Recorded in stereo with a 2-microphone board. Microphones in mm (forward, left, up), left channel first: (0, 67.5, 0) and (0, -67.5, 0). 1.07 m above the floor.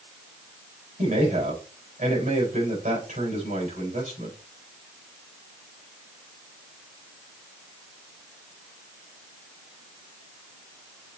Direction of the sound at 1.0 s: 70° right (ahead or behind).